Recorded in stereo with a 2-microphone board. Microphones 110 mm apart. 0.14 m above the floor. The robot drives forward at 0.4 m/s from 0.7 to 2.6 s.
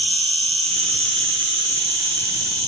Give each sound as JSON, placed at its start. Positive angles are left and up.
{"t": 0.0, "sound": "an insect", "side_deg": -65, "distance_m": 0.9}